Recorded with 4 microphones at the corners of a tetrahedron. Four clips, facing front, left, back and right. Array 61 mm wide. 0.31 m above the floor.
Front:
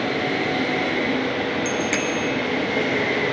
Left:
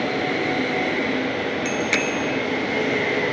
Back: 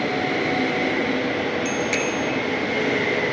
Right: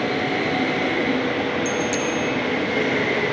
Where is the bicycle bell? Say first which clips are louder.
Even, even; 75° left, 3.5 m.